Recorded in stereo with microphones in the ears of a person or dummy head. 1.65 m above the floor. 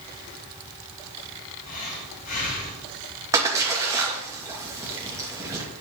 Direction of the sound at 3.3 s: 15° right (ahead or behind).